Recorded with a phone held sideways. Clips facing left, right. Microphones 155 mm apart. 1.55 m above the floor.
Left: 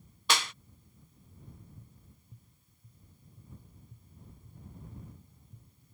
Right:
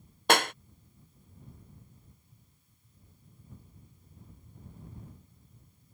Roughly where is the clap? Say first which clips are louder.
Right 8 dB; right.